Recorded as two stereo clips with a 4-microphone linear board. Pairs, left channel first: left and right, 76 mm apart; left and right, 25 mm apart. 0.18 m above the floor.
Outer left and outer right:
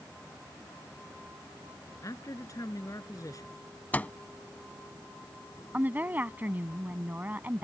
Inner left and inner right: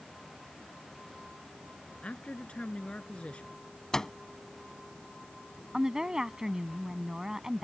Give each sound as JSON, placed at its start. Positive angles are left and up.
{"t": 2.0, "sound": "a man speaking", "side_deg": 50}
{"t": 3.9, "sound": "a microwave", "side_deg": 20}
{"t": 5.7, "sound": "a woman speaking", "side_deg": -25}